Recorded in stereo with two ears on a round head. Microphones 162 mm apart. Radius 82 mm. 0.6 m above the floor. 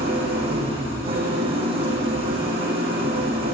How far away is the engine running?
About 7 m.